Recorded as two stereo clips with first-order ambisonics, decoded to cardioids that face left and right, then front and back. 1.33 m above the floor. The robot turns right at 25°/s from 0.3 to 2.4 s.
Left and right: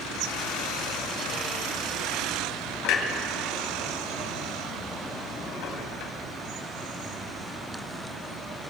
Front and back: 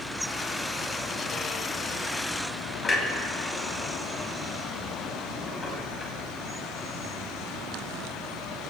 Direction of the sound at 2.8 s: 80° left.